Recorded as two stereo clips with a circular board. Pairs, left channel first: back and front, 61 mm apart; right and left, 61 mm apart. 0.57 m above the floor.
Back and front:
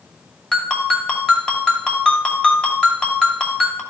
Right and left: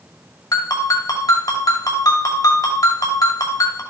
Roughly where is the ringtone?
Right.